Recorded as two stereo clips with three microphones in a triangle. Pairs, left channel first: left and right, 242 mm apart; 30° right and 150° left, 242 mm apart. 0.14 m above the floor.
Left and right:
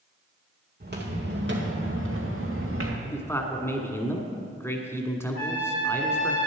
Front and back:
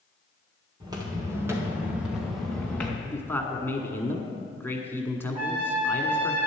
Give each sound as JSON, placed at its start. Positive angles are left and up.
{"t": 0.8, "sound": "footsteps", "azimuth_deg": -135, "distance_m": 3.0}
{"t": 3.0, "sound": "a man speaking", "azimuth_deg": 30, "distance_m": 1.1}
{"t": 5.3, "sound": "a trumpet", "azimuth_deg": -140, "distance_m": 3.0}